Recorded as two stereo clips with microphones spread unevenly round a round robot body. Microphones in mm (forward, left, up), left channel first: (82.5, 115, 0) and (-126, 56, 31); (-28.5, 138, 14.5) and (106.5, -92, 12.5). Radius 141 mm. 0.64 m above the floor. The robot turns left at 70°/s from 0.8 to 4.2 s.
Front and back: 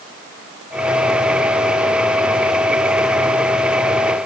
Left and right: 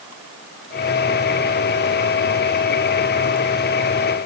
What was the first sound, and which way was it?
Only background noise.